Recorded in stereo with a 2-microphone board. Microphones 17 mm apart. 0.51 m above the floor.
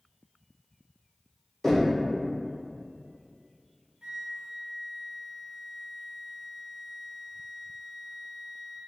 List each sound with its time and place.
1.6 s knocking: 25° left (ahead or behind), 0.7 m
4.0 s a flute: 50° right (ahead or behind), 0.7 m